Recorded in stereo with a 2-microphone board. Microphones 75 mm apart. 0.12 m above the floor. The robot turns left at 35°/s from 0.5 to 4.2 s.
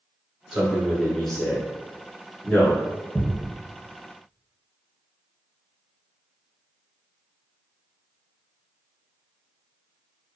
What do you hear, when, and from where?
0.5 s a man speaking: 10° right (ahead or behind), 1.1 m; by 2.8 s 25° left (ahead or behind), 1.1 m
3.1 s a thud: 5° left (ahead or behind), 1.3 m; by 3.5 s 15° left (ahead or behind), 1.3 m